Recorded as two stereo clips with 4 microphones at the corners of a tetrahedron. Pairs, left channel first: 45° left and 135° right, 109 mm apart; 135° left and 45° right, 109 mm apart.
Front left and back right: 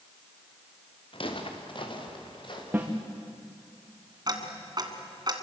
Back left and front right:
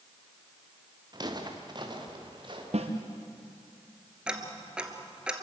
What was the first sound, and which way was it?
Footsteps, 10° left.